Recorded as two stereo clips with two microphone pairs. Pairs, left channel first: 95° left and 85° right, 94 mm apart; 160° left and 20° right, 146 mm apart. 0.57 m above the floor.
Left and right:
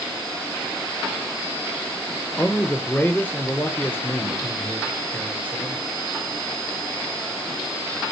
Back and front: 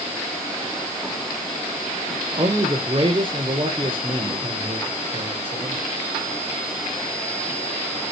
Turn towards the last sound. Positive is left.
turn(degrees=25)